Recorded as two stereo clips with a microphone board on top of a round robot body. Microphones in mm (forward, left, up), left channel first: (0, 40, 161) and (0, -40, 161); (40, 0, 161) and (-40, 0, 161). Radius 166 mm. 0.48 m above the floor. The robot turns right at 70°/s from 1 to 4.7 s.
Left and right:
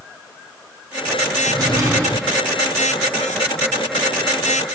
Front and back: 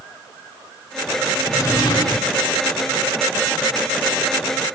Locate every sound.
1.5 s a drawer: 65° right, 2 m; by 2.3 s 5° right, 2 m